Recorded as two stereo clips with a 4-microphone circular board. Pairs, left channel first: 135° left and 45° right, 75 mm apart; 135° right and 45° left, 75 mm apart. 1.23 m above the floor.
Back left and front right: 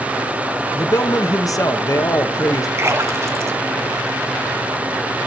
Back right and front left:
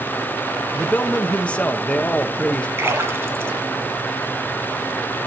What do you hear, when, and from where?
0.7 s a man speaking: 155° left, 0.9 m
2.8 s a splash: 5° right, 1.8 m